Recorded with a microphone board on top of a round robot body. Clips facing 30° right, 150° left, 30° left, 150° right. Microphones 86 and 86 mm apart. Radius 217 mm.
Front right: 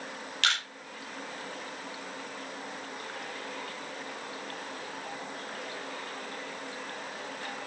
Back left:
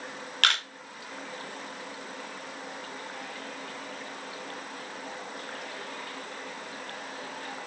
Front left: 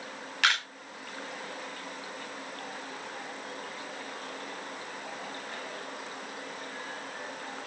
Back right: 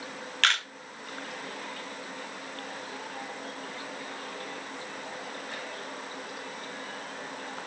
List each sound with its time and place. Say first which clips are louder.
0.4 s a camera shutter: back left 3 dB, even; 110° left, 1.7 m